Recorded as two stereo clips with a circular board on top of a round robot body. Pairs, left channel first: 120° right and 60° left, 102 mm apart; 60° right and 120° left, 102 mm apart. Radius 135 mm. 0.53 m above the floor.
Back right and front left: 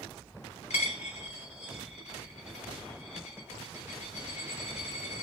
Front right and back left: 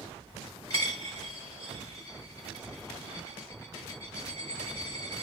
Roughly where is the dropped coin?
Behind right.